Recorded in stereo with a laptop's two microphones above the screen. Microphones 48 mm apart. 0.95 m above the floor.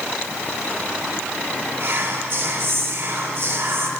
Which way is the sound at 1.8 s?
50° right (ahead or behind).